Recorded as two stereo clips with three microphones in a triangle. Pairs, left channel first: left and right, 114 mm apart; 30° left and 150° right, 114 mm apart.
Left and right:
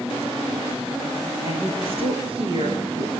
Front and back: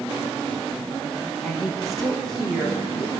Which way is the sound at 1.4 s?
60° right.